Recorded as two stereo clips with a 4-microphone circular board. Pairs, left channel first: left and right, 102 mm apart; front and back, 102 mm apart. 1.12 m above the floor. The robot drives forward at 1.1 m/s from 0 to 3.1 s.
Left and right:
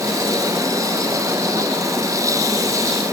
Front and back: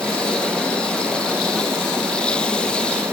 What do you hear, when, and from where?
Only background noise.